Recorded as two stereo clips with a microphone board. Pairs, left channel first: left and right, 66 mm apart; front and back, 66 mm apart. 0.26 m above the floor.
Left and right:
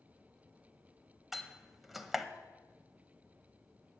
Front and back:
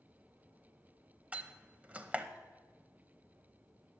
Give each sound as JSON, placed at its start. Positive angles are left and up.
{"t": 1.3, "sound": "a door slam", "azimuth_deg": -170, "distance_m": 0.7}